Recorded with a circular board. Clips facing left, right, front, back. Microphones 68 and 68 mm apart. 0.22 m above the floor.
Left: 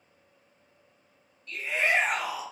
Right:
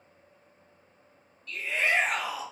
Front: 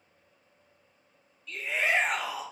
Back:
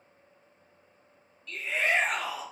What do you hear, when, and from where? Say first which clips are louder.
1.5 s a shout: left 1 dB, even; 75° left, 1.1 m